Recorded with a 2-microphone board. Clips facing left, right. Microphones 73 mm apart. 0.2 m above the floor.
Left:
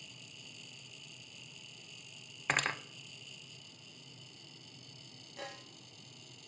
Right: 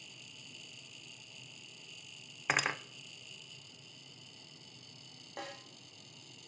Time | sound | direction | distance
2.5 | cutlery clinking | 5° right (ahead or behind) | 0.6 m
5.4 | a snare drum | 50° right (ahead or behind) | 8 m